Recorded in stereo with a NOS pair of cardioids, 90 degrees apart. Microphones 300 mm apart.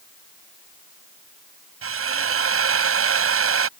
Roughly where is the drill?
Ahead right.